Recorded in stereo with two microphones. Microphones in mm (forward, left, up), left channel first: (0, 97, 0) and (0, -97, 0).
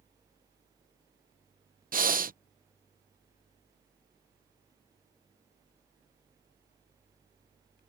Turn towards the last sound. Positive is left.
turn(degrees=-45)  # may be behind; listen again after turning